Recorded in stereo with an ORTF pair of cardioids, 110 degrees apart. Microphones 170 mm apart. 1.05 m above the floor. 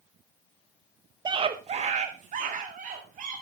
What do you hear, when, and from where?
1.2 s a scream: 25° right, 0.8 m; by 3.4 s 50° right, 3 m